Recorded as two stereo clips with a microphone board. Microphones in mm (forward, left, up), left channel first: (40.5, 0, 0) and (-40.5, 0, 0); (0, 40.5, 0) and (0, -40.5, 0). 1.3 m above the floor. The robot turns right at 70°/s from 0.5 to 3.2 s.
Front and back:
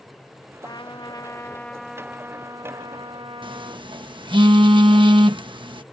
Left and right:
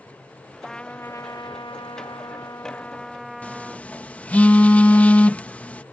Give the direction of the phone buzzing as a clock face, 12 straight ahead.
7 o'clock.